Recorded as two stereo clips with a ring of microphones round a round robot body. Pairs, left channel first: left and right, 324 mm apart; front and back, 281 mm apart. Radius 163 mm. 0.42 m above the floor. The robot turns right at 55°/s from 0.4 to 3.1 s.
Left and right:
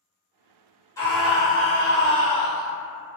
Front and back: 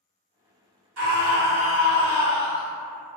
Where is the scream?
170° left, 1.2 m; by 2.7 s 100° right, 1.2 m.